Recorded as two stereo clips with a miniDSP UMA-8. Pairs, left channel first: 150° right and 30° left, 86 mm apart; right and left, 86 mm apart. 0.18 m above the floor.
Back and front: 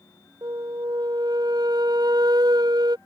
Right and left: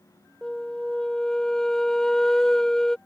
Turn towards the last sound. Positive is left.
turn(degrees=-5)